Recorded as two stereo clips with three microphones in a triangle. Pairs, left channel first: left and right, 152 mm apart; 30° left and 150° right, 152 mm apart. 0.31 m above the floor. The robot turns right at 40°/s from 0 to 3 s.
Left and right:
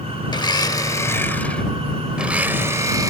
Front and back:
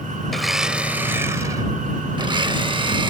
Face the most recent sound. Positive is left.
turn(degrees=-135)